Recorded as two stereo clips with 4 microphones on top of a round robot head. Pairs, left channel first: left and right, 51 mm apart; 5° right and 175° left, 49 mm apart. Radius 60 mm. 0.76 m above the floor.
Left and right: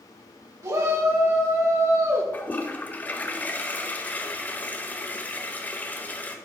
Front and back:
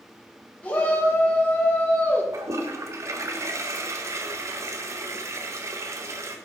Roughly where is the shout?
Ahead right.